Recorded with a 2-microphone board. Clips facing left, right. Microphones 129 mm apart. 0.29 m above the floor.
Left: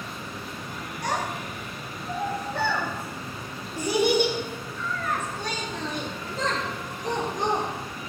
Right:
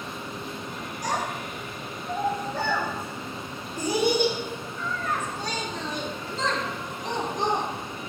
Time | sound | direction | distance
1.0 | a child speaking | 65° left (ahead or behind) | 2.5 m